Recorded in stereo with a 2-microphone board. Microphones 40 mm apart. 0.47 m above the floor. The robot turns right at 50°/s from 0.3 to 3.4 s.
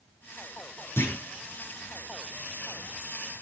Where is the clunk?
75° left (ahead or behind), 7.5 m; by 1.2 s 80° left, 7.5 m.